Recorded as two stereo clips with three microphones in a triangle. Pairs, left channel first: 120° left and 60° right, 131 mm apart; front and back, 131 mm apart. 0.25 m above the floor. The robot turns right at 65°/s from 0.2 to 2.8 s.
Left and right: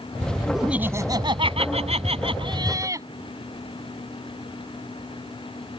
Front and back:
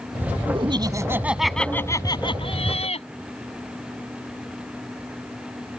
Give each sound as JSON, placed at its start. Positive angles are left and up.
{"t": 0.5, "sound": "laughter", "azimuth_deg": -150}